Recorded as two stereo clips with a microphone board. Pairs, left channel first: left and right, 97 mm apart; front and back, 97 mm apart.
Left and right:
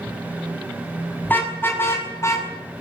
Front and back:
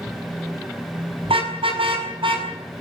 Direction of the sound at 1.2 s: 160° left.